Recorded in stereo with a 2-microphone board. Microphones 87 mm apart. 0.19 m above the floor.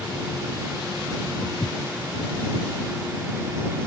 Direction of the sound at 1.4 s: 40° left (ahead or behind).